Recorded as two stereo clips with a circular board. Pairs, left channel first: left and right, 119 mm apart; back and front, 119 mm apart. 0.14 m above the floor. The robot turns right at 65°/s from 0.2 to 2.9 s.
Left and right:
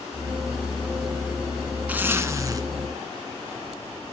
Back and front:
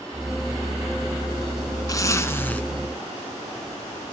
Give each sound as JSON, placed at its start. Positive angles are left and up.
{"t": 1.9, "sound": "a zipper", "azimuth_deg": -155, "distance_m": 1.1}